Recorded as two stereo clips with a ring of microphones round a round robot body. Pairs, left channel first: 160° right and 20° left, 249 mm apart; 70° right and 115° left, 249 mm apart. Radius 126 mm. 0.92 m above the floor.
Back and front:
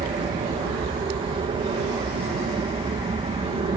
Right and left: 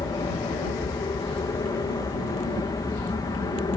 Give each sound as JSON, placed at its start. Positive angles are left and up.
{"t": 0.0, "sound": "an aircraft", "azimuth_deg": -15}